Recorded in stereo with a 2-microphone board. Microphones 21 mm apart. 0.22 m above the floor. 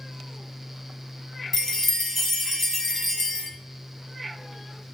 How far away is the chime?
About 1.0 m.